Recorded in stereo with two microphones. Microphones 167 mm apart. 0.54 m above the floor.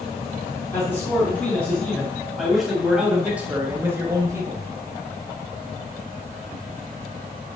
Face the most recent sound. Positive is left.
turn(degrees=-25)  # may be behind; listen again after turning